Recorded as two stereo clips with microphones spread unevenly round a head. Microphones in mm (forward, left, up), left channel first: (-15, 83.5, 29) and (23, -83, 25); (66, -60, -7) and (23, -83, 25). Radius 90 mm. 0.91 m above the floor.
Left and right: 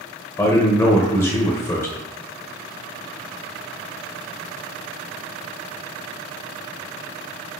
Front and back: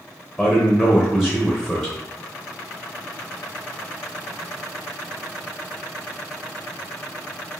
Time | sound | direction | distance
0.4 | a man speaking | 35° left | 0.7 m